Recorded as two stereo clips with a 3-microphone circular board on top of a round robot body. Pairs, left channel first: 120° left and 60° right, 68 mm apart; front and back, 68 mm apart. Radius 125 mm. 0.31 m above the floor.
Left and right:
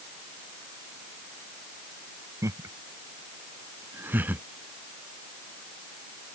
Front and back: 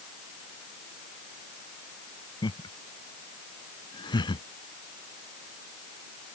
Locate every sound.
2.4 s laughter: 10° right; by 4.4 s 5° left